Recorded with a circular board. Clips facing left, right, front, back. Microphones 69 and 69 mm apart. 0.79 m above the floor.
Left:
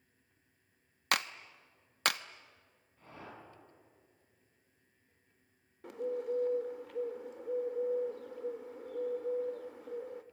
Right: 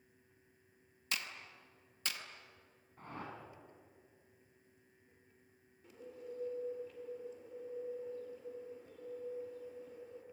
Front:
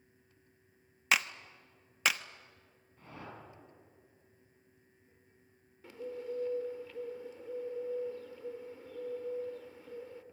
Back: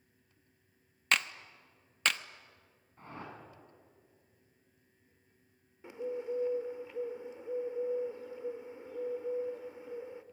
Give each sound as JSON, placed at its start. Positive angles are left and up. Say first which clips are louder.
{"t": 1.1, "sound": "a clap", "louder": "left 9 dB, front 1 dB", "azimuth_deg": 85, "distance_m": 0.8}
{"t": 3.0, "sound": "a whoosh", "louder": "right 3 dB, back 2 dB", "azimuth_deg": -130, "distance_m": 6.5}
{"t": 5.8, "sound": "a bird", "louder": "left 14 dB, back 4 dB", "azimuth_deg": 110, "distance_m": 1.2}